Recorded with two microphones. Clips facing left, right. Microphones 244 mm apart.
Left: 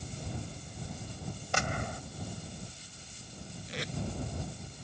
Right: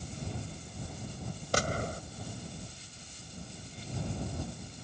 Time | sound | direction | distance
1.5 | a gunshot | 40° right (ahead or behind) | ?
3.7 | tape being pulled | 85° left | ?